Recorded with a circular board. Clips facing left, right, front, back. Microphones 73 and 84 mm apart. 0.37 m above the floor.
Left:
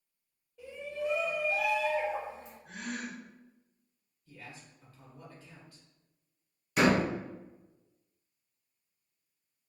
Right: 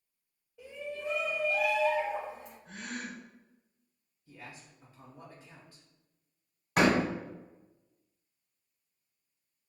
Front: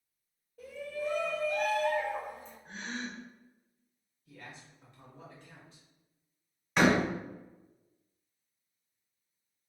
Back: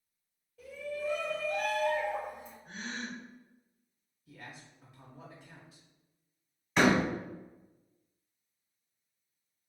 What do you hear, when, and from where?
0.6 s a shout: straight ahead, 1.5 m; by 2.5 s 105° left, 1.7 m
2.6 s a gasp: 20° left, 1.8 m
4.3 s a man speaking: 115° right, 0.8 m
6.8 s a door slam: 85° right, 1.4 m